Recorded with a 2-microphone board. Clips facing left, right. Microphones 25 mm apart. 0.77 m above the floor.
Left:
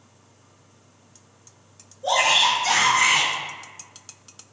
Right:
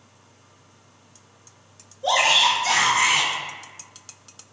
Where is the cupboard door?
I don't hear a cupboard door.